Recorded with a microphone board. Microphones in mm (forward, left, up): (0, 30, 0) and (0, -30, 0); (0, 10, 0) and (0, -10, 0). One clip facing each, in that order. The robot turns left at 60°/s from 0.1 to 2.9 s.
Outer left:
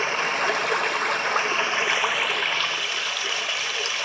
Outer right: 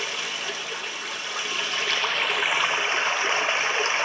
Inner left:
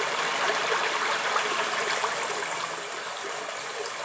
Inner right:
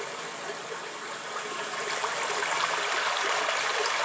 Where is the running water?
135° left, 0.7 m; by 4.0 s 35° right, 0.7 m.